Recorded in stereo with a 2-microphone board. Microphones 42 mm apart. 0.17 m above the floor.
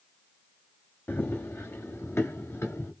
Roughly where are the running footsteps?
Left.